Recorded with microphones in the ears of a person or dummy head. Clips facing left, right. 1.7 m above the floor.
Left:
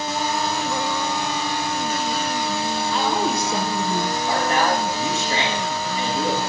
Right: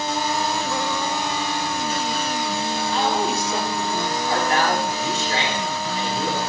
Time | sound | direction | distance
2.9 | a woman speaking | 85° left | 1.4 m
4.3 | a man speaking | 85° left | 3.5 m